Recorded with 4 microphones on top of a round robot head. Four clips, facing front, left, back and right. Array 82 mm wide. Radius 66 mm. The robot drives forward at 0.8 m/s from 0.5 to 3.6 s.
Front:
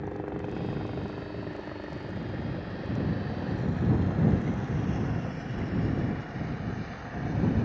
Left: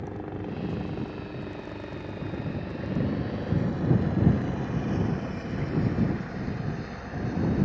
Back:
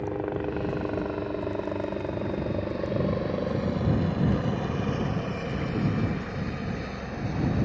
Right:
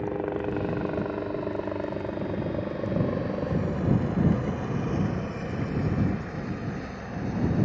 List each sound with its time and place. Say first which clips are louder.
0.0 s a helicopter: right 7 dB, back 5 dB; 120° right; by 7.7 s 165° right